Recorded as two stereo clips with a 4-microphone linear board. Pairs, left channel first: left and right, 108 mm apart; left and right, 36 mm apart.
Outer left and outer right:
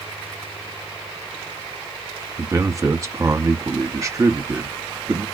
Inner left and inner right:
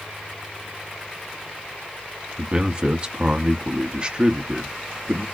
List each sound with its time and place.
2.4 s a man speaking: 30° right (ahead or behind), 0.8 m